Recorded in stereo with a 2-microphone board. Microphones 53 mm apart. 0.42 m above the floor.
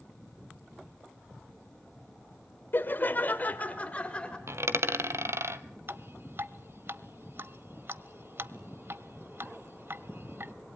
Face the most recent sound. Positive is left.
turn(degrees=-50)  # may be behind; listen again after turning